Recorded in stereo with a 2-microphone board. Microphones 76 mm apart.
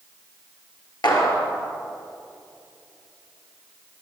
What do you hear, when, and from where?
1.0 s a clap: 65° left (ahead or behind), 3 m